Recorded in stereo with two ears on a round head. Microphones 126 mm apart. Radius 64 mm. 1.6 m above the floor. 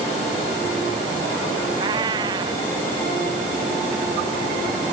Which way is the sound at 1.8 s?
30° right (ahead or behind).